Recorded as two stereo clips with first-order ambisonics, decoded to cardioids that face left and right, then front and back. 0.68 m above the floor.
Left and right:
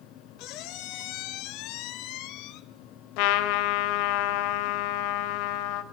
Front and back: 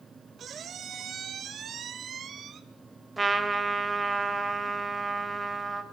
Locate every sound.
0.4 s a squeak: 115° left, 0.8 m
3.2 s a trumpet: 100° left, 0.8 m